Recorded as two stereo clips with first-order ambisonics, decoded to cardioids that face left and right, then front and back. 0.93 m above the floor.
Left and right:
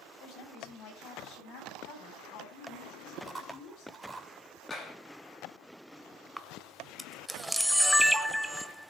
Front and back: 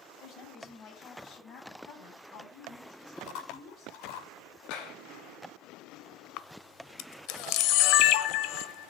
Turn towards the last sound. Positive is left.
turn(degrees=0)